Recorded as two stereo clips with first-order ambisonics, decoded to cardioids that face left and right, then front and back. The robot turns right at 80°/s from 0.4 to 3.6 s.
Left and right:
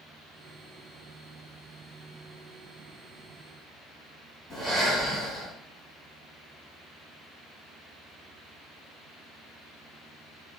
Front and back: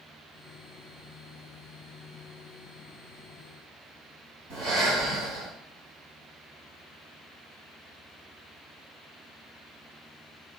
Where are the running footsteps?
I don't hear running footsteps.